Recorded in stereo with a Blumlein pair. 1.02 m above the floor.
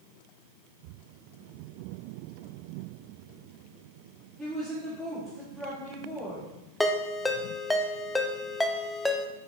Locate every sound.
4.4 s a woman speaking: 5° left, 2.5 m
6.8 s a ringtone: 10° left, 0.6 m